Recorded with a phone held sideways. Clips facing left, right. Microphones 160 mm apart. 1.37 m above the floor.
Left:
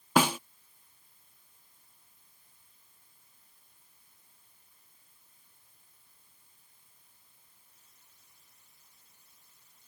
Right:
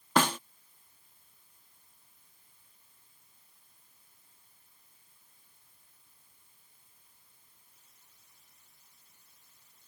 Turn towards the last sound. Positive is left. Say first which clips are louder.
# left 2 dB
turn(degrees=10)  # may be behind; listen again after turning